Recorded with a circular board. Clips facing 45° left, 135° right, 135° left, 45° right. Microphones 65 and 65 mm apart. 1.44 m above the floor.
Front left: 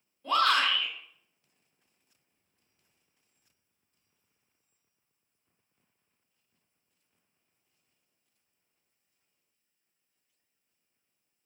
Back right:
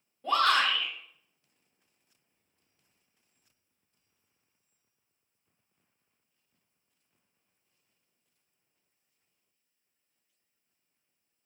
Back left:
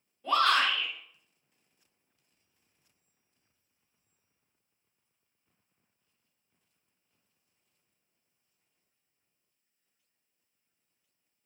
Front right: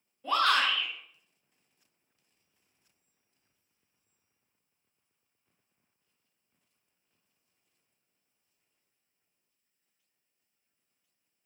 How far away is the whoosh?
I don't hear a whoosh.